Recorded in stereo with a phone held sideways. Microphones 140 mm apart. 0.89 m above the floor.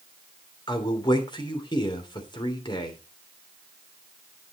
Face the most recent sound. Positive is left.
turn(degrees=35)  # may be behind; listen again after turning